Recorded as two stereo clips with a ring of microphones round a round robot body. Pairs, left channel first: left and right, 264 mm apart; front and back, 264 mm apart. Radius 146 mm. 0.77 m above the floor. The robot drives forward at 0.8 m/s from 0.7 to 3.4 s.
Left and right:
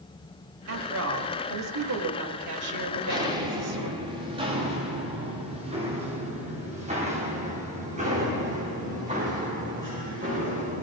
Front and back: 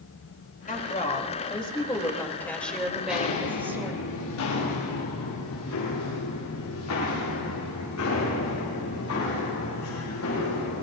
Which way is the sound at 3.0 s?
15° right.